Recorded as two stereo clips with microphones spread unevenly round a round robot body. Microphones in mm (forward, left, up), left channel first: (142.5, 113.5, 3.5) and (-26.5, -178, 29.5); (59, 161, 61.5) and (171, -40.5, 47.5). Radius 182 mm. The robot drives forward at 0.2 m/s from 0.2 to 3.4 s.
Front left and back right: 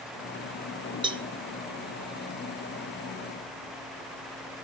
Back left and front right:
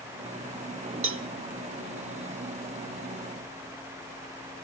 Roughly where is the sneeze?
No sneeze in this recording.